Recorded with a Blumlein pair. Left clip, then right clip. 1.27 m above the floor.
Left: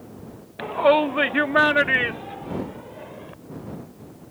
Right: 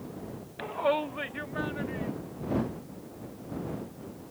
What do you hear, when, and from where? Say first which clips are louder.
0.6 s a shout: left 10 dB; 15° left; by 3.3 s 50° left